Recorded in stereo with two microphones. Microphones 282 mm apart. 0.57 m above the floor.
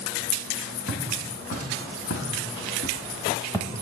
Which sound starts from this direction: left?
Footsteps, at 0.9 s.